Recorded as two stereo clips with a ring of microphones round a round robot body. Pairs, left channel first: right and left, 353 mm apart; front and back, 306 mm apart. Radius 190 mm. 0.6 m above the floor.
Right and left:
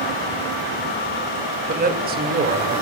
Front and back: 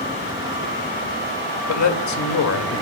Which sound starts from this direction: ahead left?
A man speaking, at 1.7 s.